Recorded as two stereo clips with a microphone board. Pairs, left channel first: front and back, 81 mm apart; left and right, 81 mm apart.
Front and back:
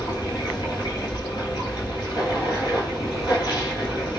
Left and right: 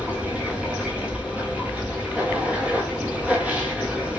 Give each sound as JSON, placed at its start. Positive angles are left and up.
{"t": 0.0, "sound": "running water", "azimuth_deg": -15, "distance_m": 1.8}